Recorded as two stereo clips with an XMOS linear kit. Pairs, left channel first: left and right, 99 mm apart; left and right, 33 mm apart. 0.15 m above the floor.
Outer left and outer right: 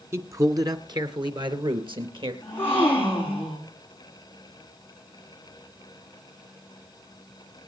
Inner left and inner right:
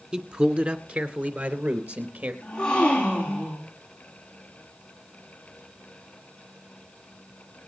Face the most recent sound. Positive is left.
turn(degrees=20)  # may be behind; listen again after turning